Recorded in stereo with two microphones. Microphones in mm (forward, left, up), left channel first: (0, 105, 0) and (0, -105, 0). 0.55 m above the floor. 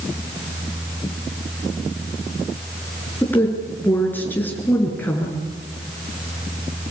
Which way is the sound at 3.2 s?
10° left (ahead or behind).